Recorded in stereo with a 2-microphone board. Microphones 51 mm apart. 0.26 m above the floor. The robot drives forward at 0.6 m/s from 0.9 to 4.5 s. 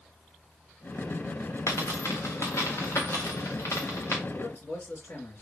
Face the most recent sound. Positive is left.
turn(degrees=55)  # may be behind; listen again after turning